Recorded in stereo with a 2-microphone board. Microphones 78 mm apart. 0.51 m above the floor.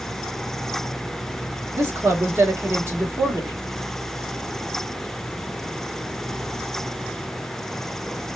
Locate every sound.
1.8 s a woman speaking: 30° right (ahead or behind), 0.9 m